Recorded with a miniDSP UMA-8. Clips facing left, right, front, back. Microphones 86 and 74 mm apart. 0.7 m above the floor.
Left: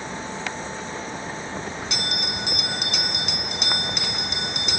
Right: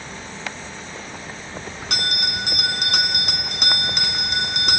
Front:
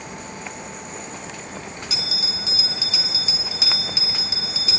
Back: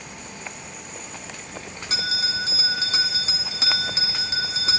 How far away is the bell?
About 2.5 m.